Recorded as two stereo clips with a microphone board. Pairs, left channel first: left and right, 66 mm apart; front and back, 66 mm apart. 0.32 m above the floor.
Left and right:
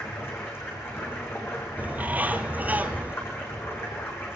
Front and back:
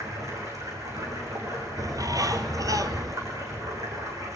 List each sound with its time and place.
0.0 s running water: 140° left, 6 m
1.8 s a bird: 155° right, 1.1 m